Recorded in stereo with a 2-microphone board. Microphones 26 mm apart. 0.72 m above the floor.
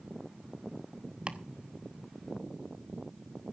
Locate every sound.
1.3 s chopping: 45° right (ahead or behind), 1.0 m